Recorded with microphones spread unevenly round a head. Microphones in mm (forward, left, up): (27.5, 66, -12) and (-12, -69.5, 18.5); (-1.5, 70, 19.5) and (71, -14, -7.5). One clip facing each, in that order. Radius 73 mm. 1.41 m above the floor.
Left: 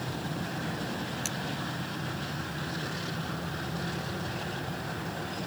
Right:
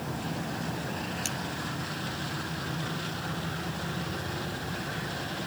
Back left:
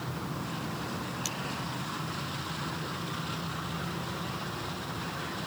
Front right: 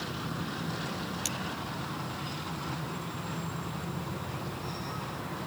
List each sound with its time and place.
1.2 s cutlery clinking: 15° right